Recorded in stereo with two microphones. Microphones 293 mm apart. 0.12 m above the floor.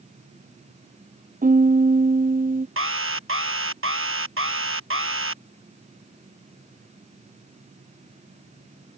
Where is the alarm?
45° right (ahead or behind).